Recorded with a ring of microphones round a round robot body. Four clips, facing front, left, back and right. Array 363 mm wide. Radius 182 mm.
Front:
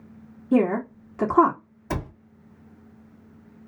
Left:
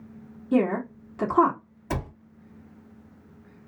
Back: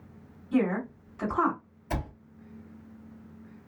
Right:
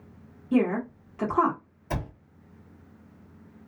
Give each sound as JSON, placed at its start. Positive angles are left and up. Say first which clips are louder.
{"t": 0.5, "sound": "a woman speaking", "louder": "left 1 dB, front 6 dB", "azimuth_deg": 10, "distance_m": 1.5}
{"t": 1.9, "sound": "a cupboard door", "louder": "left 2 dB, front 4 dB", "azimuth_deg": 25, "distance_m": 1.4}